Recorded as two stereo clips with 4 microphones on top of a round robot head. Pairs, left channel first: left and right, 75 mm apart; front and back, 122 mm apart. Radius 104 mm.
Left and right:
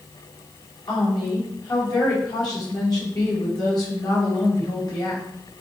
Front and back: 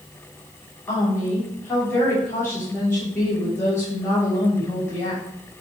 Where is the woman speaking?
70° left, 6 m.